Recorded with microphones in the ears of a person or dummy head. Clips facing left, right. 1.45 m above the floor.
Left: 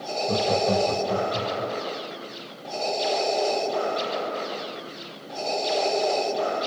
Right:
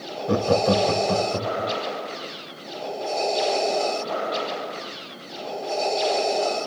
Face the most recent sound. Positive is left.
turn(degrees=-70)  # may be behind; listen again after turning